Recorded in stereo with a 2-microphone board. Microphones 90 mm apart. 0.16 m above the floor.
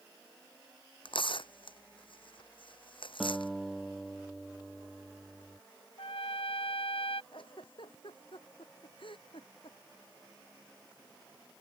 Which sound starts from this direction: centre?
A guitar, at 3.2 s.